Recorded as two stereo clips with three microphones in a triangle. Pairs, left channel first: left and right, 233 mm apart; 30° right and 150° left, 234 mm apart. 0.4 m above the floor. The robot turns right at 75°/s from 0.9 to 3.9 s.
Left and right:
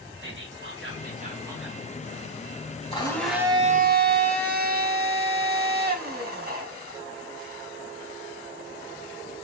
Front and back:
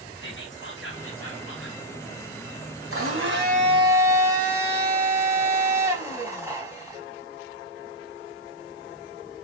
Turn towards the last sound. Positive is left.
turn(degrees=-130)